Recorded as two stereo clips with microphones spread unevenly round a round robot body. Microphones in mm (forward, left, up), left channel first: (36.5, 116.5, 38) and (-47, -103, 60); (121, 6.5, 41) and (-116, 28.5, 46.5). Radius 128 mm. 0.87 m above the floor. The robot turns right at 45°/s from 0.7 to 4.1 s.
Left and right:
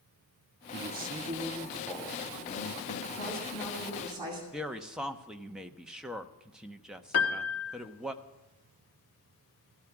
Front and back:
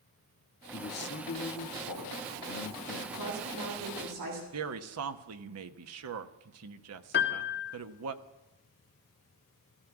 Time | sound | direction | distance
0.7 | a man speaking | 65° right | 1.3 m
3.1 | a woman speaking | 130° left | 8.5 m
4.5 | a woman speaking | 160° left | 1.1 m
7.1 | a piano | 40° left | 1.5 m